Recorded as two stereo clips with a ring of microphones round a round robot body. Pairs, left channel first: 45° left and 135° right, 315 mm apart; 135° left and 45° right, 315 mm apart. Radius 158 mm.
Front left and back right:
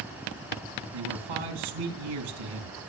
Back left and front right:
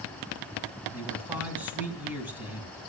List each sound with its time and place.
0.9 s a man speaking: 130° right, 4 m